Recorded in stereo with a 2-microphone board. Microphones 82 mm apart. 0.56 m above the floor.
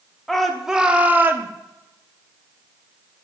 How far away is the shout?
About 0.9 m.